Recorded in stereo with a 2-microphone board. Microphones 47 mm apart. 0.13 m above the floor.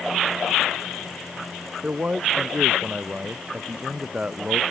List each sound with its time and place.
1.8 s a man speaking: 30° right (ahead or behind); by 4.6 s 20° right (ahead or behind)